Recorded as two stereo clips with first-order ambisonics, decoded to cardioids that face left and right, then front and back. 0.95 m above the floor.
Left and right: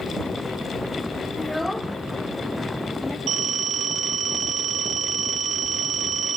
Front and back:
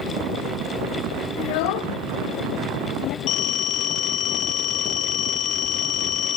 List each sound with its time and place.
1.4 s a child speaking: straight ahead, 0.7 m
3.3 s a phone ringing: 35° right, 1.8 m